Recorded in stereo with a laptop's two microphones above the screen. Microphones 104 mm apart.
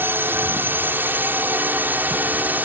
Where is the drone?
20° right (ahead or behind); by 2.7 s 15° right (ahead or behind).